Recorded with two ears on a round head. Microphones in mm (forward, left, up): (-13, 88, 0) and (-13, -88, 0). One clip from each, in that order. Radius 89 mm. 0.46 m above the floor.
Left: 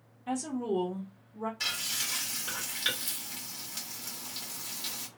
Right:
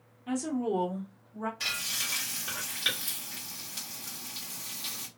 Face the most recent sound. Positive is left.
turn(degrees=15)  # may be behind; listen again after turning